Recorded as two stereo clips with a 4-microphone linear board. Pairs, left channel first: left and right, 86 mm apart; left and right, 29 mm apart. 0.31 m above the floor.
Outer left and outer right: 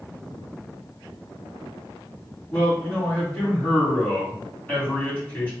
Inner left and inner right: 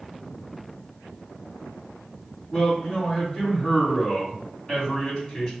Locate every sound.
2.5 s a man speaking: 20° left (ahead or behind), 2 m